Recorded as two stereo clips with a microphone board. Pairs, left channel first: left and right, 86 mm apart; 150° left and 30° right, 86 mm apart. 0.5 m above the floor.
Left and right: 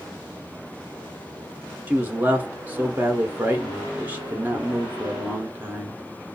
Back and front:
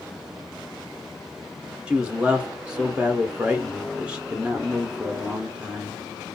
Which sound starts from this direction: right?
A man speaking, at 1.9 s.